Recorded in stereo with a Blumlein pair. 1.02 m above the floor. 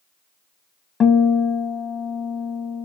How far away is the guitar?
About 0.7 m.